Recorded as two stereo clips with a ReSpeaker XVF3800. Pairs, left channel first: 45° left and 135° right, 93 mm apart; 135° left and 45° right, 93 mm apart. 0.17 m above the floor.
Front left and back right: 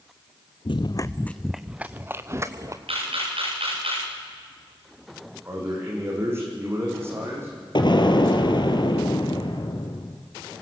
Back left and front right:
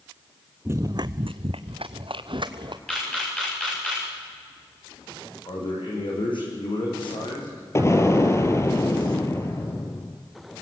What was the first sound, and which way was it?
Running footsteps, 20° left.